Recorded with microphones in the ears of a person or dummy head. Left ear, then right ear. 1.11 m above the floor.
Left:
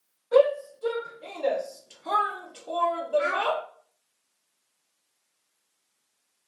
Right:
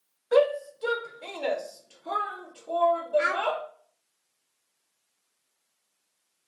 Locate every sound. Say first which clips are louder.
0.3 s a shout: left 2 dB; 65° right (ahead or behind), 1.2 m; by 3.6 s 60° left (ahead or behind), 1.4 m
3.2 s a child speaking: even; 30° right (ahead or behind), 0.5 m